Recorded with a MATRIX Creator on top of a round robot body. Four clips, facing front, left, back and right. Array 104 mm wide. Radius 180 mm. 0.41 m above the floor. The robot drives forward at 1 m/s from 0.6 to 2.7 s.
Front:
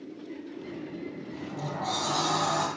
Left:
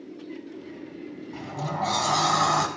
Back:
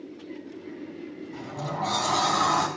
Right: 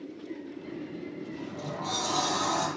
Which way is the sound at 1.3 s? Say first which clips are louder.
Left 9 dB, back 4 dB; 100° left.